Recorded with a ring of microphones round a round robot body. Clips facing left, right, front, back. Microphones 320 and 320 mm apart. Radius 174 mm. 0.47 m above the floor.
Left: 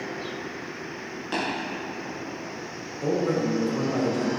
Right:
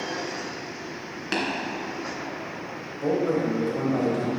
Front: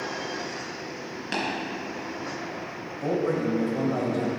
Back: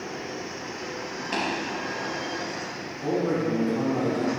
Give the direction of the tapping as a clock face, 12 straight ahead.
2 o'clock.